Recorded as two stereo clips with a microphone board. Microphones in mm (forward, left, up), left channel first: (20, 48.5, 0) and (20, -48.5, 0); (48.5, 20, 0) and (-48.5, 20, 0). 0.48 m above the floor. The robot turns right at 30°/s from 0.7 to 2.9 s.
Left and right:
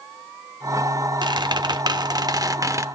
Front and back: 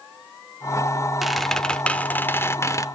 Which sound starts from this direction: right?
A squeak, at 1.2 s.